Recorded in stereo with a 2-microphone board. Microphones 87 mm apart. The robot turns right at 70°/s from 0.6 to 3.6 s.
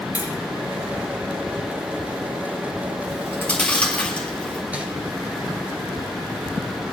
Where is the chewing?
45° left (ahead or behind), 2 m; by 4.6 s 15° left (ahead or behind), 2 m.